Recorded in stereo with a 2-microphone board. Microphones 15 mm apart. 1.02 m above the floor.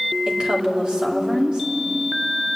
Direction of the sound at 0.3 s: 55° right (ahead or behind).